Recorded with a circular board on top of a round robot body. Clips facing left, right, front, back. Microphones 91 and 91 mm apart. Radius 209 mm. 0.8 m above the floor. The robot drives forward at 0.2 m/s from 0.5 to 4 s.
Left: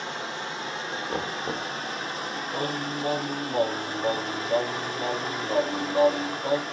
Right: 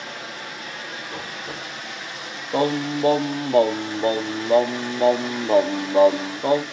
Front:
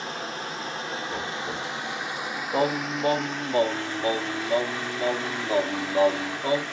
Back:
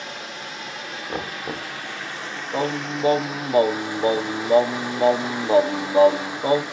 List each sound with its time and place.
0.0 s running water: 40° left, 0.9 m; by 6.7 s 115° left, 0.8 m
1.1 s knocking: 130° left, 0.7 m; by 1.7 s 135° left, 0.8 m
2.5 s singing: 90° right, 0.5 m; by 6.6 s 120° right, 0.6 m